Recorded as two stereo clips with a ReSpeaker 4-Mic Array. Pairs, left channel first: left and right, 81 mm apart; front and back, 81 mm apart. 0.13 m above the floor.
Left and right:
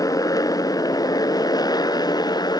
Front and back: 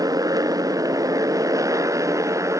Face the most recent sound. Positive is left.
turn(degrees=130)